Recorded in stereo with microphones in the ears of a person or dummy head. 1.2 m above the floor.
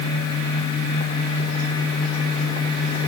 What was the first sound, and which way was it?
Only background noise.